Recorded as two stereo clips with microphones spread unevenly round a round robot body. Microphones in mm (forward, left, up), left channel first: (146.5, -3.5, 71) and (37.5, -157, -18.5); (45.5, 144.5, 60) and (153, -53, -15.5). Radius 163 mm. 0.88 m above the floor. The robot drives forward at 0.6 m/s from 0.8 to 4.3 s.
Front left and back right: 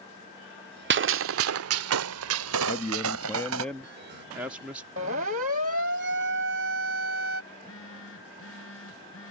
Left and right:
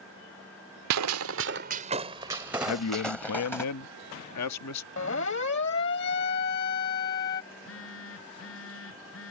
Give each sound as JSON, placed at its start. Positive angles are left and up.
{"t": 0.9, "sound": "a gunshot", "azimuth_deg": -85}
{"t": 2.6, "sound": "a man speaking", "azimuth_deg": 125}
{"t": 5.0, "sound": "a siren", "azimuth_deg": 175}
{"t": 7.5, "sound": "a phone buzzing", "azimuth_deg": 100}